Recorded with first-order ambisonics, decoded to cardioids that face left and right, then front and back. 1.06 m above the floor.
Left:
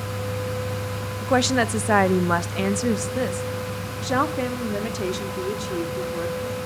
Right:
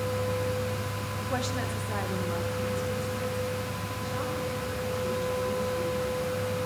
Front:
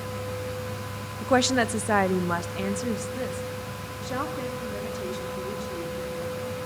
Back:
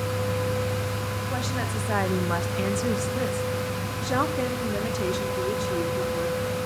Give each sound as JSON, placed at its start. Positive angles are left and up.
{"t": 1.2, "sound": "a woman speaking", "azimuth_deg": 35, "distance_m": 0.8}